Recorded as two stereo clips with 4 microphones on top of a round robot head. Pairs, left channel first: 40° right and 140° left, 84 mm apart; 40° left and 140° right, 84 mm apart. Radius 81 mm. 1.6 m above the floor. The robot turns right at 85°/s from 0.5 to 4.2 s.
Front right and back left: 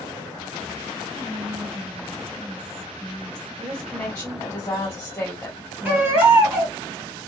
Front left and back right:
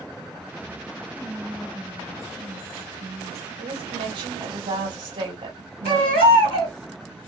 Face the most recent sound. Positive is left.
turn(degrees=65)